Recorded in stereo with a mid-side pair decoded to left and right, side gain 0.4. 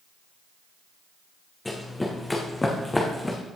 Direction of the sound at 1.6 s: 15° left.